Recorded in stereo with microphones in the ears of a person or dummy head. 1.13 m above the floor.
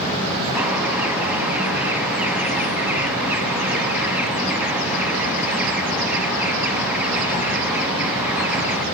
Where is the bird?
10° right (ahead or behind), 1.7 m.